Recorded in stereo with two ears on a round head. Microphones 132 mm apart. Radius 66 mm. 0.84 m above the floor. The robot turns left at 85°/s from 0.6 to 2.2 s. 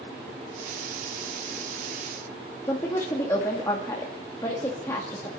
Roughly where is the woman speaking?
Centre.